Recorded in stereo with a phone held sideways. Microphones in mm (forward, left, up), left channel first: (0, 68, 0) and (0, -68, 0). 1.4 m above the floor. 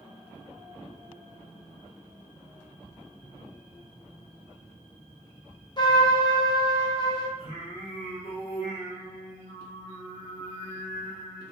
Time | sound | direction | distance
5.8 | a trumpet | 30° left (ahead or behind) | 0.7 m
7.4 | singing | 40° left (ahead or behind) | 1.7 m